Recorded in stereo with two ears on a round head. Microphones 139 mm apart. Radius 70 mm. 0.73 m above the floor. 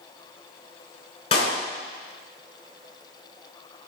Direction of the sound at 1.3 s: 40° left (ahead or behind).